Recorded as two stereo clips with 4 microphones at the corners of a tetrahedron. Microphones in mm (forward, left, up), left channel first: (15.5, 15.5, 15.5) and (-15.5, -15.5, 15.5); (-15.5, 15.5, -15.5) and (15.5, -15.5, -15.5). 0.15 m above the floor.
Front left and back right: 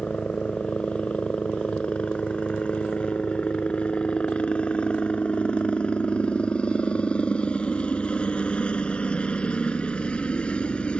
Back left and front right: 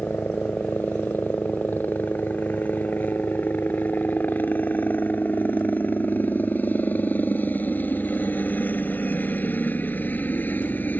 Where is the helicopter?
105° left.